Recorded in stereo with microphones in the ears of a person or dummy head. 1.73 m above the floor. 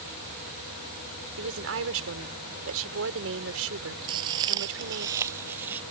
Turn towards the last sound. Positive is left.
turn(degrees=-10)  # may be behind; listen again after turning